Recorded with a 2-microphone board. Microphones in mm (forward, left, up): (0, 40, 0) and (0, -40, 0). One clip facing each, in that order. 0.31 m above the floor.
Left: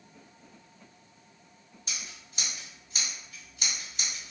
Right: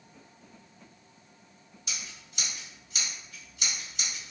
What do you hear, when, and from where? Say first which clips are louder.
1.9 s scissors: even; 40° left (ahead or behind), 1.8 m